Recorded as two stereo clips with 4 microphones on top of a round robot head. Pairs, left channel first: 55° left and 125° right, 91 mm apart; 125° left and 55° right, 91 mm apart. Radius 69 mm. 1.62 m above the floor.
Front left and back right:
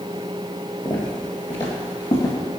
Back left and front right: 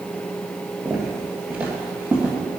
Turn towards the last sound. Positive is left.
turn(degrees=15)